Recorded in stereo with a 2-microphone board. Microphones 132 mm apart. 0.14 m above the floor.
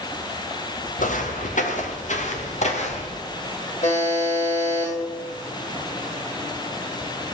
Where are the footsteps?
80° left, 2.5 m; by 3.2 s 55° left (ahead or behind), 3 m.